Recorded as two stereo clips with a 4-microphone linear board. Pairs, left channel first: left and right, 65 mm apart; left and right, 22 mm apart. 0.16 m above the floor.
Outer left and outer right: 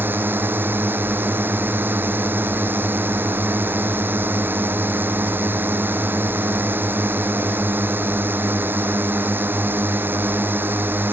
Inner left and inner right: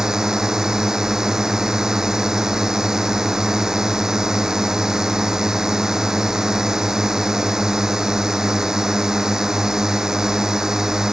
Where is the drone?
30° right (ahead or behind).